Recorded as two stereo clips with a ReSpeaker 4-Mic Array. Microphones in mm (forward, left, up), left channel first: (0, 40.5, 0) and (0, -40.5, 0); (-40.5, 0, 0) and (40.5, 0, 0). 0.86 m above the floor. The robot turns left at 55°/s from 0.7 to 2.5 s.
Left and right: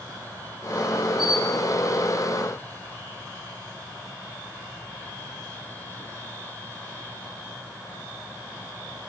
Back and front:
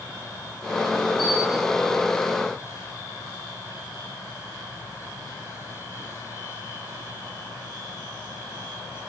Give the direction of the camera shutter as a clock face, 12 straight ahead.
12 o'clock.